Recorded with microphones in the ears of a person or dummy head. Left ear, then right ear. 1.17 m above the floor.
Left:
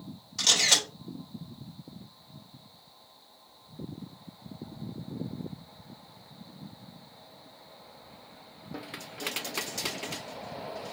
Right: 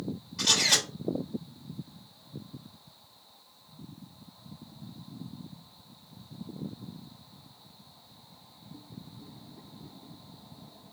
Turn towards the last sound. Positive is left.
turn(degrees=25)  # may be behind; listen again after turning